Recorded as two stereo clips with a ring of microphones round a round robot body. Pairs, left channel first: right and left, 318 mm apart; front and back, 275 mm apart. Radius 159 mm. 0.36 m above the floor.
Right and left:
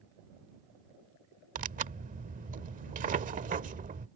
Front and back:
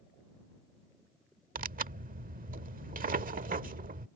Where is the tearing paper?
140° left.